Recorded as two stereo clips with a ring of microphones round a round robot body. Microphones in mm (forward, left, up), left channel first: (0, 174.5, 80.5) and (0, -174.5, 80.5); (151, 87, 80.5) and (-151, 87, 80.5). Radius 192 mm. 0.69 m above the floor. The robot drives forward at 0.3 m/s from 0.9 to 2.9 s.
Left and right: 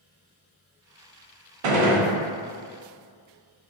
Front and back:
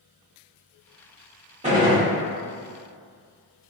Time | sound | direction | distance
1.6 | a gunshot | 110° right | 0.6 m